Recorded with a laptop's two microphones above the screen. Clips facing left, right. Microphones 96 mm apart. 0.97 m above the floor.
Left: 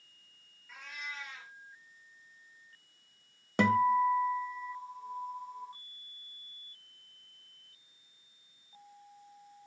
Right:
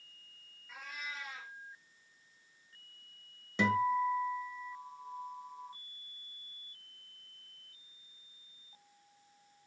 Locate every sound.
0.7 s a cat meowing: 5° right (ahead or behind), 2 m
3.6 s a guitar: 60° left (ahead or behind), 1.2 m